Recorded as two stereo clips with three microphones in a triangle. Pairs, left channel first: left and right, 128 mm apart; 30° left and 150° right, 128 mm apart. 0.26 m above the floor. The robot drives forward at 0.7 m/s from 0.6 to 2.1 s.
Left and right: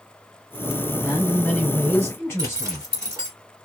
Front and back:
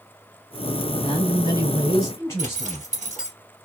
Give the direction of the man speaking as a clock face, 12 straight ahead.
11 o'clock.